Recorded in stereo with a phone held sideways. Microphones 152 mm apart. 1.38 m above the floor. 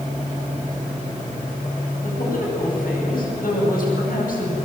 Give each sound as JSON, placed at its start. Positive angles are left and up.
{"t": 2.0, "sound": "a woman speaking", "side_deg": 75, "distance_m": 10.0}